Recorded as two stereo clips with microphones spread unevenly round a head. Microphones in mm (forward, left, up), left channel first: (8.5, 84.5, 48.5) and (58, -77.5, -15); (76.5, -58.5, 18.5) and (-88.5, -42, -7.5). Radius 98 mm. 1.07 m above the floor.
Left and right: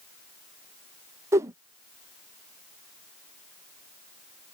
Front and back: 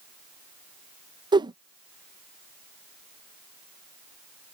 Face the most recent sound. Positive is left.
turn(degrees=-130)